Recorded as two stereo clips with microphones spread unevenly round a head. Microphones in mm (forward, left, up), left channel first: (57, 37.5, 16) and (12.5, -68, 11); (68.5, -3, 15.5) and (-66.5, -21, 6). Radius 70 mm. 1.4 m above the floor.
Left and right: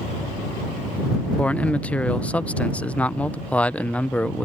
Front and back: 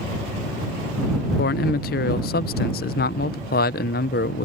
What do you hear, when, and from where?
1.4 s a man speaking: 10° right